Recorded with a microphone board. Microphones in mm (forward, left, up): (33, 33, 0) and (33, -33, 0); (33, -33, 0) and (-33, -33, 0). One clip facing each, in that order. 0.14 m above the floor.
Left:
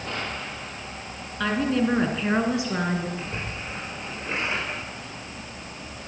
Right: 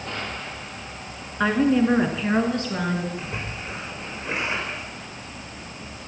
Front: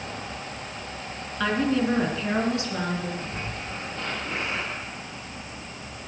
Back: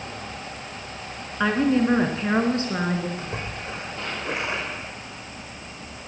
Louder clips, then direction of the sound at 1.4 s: Right 4 dB, back 3 dB; 125° right.